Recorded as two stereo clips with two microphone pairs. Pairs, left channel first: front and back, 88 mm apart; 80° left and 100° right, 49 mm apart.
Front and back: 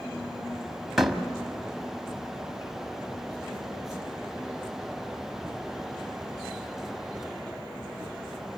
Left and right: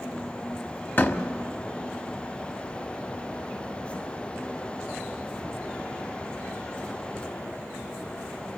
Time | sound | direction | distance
1.0 | a door slam | 95° left | 1.3 m